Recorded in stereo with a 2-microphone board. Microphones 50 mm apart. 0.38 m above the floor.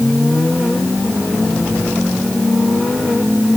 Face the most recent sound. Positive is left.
No sound to turn to.